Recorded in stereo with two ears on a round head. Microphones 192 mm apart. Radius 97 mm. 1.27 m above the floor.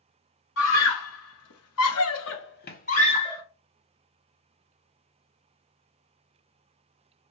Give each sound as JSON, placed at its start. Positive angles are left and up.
{"t": 0.6, "sound": "a scream", "side_deg": 65, "distance_m": 1.1}